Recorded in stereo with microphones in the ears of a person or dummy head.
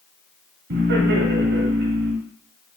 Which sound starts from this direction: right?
Laughter, at 0.7 s.